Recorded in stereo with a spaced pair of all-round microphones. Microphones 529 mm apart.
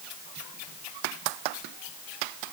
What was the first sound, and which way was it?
Only background noise.